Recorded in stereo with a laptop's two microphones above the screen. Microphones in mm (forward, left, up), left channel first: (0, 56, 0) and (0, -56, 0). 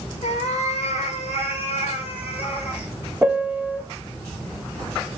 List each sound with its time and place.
0.2 s a cat meowing: 75° left (ahead or behind), 2.5 m; by 2.9 s 60° left (ahead or behind), 4 m
3.2 s a piano: 15° right (ahead or behind), 1.1 m